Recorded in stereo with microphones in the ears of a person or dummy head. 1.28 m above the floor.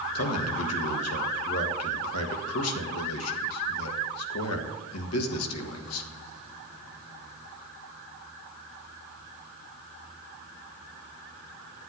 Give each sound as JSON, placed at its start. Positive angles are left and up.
{"t": 0.1, "sound": "a man speaking", "side_deg": 80, "distance_m": 1.7}